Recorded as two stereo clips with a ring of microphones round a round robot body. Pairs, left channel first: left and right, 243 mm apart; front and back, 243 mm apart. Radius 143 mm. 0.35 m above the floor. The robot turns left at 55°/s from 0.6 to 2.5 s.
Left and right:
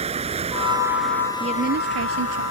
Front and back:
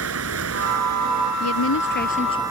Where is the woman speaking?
20° right; by 2.4 s 75° right.